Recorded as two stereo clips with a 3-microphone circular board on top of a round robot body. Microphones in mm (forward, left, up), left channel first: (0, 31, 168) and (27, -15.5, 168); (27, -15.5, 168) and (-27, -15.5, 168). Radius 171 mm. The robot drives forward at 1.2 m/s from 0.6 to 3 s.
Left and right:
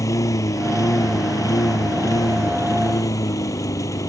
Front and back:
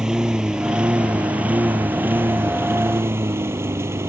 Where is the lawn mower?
105° left; by 4.1 s 140° left.